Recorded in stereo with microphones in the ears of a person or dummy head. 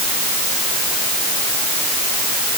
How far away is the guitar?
No guitar in this recording.